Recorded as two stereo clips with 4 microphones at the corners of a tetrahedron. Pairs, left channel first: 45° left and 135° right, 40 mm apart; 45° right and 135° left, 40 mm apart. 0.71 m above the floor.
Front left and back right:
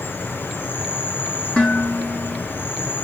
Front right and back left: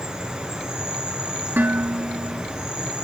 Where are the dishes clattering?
115° left, 6 m.